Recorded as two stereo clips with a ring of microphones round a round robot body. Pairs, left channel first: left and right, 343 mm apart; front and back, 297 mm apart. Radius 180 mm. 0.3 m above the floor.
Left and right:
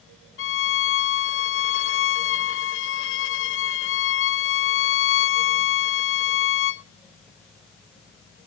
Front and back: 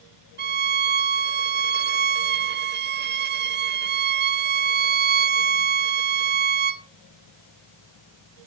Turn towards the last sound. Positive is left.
turn(degrees=135)